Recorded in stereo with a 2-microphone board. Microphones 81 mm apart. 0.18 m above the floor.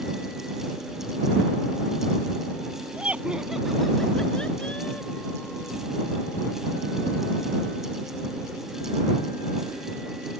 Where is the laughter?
25° right (ahead or behind); by 5.8 s 25° left (ahead or behind).